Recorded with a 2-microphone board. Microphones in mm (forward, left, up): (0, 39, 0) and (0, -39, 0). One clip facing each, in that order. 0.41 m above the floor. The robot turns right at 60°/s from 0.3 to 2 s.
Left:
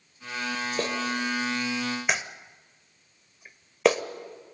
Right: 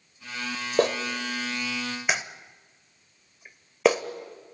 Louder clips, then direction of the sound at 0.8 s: Right 7 dB; 55° right (ahead or behind).